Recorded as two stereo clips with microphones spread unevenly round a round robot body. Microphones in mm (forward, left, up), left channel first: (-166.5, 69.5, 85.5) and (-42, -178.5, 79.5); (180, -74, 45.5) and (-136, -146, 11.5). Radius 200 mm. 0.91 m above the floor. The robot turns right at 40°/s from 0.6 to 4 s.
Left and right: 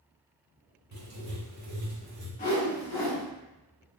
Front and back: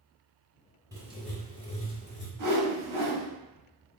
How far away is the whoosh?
About 1.9 m.